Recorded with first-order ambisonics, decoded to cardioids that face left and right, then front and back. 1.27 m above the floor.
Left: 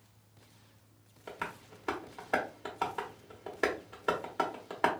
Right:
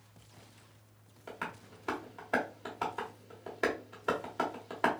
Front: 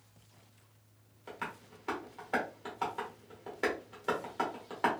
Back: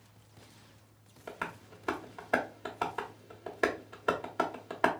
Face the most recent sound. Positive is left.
turn(degrees=165)